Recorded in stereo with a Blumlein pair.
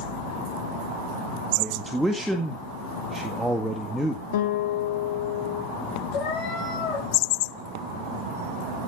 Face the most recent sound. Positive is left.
turn(degrees=30)